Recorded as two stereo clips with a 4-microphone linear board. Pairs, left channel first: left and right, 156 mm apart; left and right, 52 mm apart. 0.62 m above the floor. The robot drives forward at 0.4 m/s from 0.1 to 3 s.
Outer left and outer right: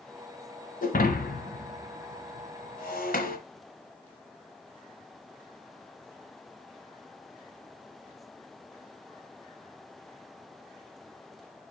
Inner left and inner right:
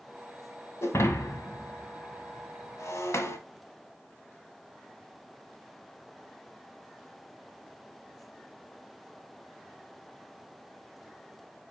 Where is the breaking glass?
65° left (ahead or behind), 1.2 m.